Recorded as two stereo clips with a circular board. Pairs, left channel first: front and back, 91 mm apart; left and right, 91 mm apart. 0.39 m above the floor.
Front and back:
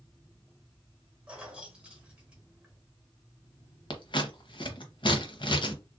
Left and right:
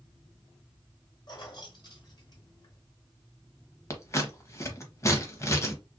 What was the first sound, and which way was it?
Keys jangling, 105° left.